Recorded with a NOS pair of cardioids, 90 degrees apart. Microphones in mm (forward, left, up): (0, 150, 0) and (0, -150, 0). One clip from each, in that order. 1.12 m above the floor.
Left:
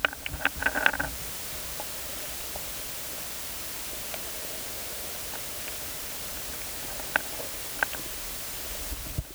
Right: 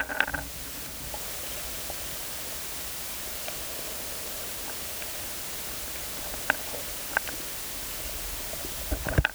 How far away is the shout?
I don't hear a shout.